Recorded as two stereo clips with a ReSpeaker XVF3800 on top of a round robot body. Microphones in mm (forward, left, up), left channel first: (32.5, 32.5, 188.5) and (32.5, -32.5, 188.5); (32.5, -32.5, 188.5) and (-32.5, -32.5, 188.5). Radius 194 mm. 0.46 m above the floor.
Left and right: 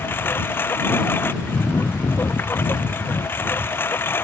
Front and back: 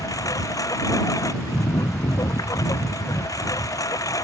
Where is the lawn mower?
35° left.